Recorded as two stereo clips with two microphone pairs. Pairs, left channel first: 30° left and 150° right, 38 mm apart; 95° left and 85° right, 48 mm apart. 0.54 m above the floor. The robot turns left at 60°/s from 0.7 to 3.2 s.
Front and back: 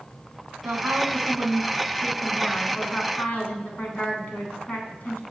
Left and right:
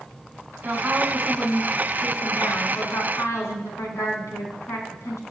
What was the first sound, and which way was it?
A woman speaking, 135° right.